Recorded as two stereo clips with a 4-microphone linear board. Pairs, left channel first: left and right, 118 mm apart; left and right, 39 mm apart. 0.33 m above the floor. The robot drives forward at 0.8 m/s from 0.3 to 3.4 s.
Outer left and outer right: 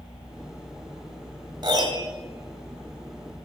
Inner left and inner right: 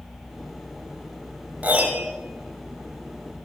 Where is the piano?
40° right (ahead or behind), 1.3 m; by 2.1 s 35° right (ahead or behind), 1.5 m.